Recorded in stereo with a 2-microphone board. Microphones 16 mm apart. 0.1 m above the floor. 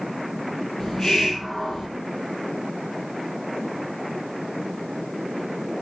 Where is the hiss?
40° left (ahead or behind), 3.5 m.